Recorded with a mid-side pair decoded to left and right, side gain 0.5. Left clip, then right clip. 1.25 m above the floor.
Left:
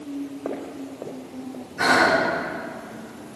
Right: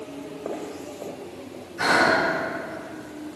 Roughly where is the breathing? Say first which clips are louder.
Left 1 dB; ahead left.